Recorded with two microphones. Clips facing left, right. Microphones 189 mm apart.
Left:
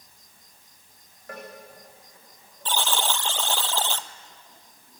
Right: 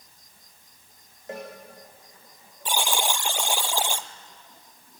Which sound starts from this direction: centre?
A buzzer, at 2.6 s.